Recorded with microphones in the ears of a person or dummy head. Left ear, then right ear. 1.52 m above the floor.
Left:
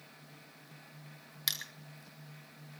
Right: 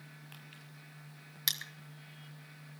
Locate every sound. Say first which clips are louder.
1.5 s crushing: right 1 dB; 10° right (ahead or behind), 2 m